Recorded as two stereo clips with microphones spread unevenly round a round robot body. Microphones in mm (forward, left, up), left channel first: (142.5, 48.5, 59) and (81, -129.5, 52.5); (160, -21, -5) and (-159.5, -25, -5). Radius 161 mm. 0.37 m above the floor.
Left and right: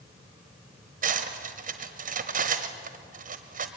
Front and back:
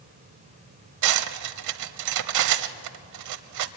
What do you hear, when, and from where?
1.0 s cutlery clinking: 155° right, 1.1 m